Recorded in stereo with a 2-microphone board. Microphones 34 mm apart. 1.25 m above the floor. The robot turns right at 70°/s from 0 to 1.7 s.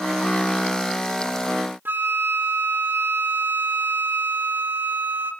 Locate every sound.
1.9 s a flute: 75° right (ahead or behind), 1.6 m